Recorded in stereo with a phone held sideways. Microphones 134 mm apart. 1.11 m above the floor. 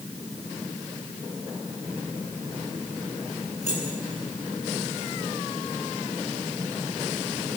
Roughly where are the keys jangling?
Left.